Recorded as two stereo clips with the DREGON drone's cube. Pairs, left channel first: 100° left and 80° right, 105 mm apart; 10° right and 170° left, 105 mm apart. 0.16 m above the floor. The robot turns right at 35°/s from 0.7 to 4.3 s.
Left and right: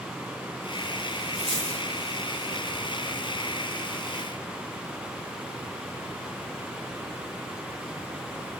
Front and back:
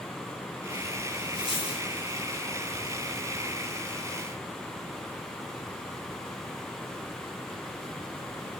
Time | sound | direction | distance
1.3 | a dropped coin | 10° left | 2.5 m